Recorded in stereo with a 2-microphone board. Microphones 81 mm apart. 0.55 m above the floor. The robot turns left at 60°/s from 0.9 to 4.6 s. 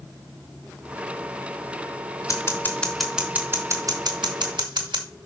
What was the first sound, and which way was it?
Scissors, 45° left (ahead or behind).